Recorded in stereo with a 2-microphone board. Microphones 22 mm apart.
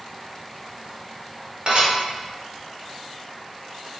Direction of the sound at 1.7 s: 45° right (ahead or behind).